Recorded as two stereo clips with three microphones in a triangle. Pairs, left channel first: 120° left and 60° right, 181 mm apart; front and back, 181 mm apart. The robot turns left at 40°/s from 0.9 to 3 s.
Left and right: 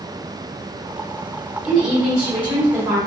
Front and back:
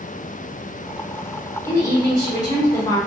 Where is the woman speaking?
40° left, 1.3 m; by 3.0 s 15° right, 1.3 m.